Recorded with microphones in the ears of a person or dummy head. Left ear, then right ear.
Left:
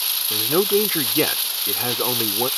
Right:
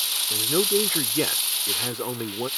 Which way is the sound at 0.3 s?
30° left (ahead or behind).